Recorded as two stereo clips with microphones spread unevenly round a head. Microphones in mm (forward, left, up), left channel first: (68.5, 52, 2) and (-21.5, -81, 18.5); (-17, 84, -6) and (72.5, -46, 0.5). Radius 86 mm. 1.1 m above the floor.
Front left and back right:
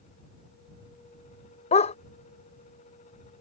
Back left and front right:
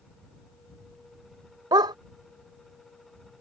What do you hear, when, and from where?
1.7 s a dog barking: 5° left